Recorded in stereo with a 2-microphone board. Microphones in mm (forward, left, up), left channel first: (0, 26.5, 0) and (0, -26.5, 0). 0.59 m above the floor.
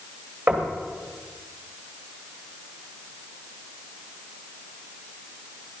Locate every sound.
0.5 s knocking: 40° right (ahead or behind), 2.5 m